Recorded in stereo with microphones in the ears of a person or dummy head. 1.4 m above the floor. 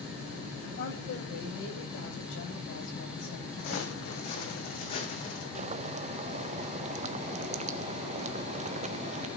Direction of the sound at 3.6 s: 55° left (ahead or behind).